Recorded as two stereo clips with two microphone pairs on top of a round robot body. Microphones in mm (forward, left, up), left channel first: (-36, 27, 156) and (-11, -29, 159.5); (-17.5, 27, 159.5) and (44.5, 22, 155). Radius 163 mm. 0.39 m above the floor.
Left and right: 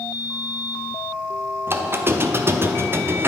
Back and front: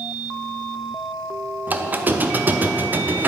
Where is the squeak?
35° right, 1.0 m.